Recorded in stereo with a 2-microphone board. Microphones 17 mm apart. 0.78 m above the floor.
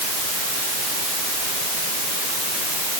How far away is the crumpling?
I don't hear crumpling.